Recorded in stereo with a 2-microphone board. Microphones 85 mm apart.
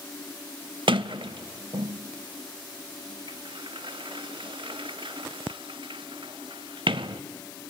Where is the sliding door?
75° right (ahead or behind), 0.6 m.